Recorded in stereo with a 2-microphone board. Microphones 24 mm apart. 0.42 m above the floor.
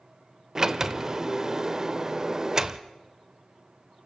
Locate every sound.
0.6 s a sliding door: 25° right (ahead or behind), 0.7 m